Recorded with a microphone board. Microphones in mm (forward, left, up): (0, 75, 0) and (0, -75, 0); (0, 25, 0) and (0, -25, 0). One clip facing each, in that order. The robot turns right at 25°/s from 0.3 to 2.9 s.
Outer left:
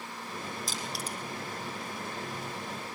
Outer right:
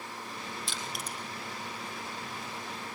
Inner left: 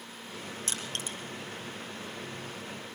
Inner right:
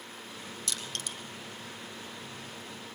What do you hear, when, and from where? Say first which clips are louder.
0.7 s crushing: outer left 2 dB, inner left 1 dB; 40° left (ahead or behind), 4 m; by 1.2 s 25° left (ahead or behind), 4 m